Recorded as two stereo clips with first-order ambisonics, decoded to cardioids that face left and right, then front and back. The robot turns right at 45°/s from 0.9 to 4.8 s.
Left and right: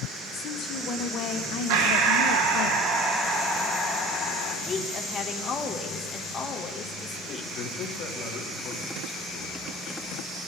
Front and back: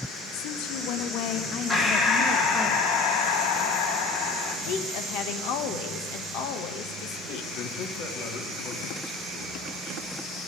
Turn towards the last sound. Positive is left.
turn(degrees=30)